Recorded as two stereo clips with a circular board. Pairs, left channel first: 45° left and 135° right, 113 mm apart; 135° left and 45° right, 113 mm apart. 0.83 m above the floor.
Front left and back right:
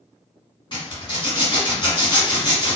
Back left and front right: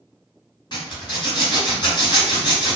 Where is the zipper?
90° left, 1.4 m.